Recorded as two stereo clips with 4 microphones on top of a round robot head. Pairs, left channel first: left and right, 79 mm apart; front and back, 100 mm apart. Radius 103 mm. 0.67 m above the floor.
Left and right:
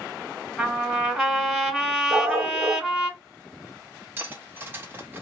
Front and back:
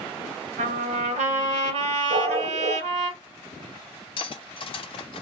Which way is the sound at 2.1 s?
150° right.